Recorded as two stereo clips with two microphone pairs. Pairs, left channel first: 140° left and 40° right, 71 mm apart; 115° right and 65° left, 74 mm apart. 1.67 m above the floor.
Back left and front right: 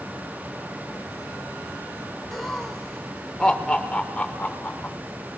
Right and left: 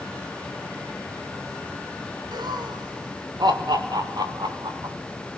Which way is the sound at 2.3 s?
55° left.